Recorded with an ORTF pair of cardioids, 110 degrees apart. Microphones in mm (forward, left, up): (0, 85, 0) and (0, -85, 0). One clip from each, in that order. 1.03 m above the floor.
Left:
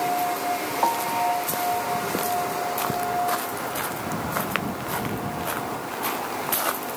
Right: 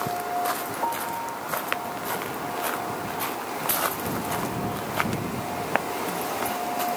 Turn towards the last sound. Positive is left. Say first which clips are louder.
# left 7 dB
turn(degrees=40)